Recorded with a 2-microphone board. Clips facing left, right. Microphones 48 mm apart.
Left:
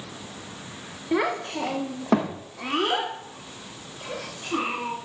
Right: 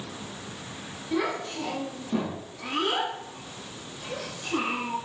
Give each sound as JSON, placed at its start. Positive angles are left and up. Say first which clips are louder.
{"t": 1.1, "sound": "a child speaking", "louder": "left 4 dB", "side_deg": 40, "distance_m": 1.4}